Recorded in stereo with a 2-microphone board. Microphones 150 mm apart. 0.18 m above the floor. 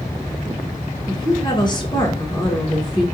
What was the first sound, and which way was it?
A woman speaking, 30° left (ahead or behind).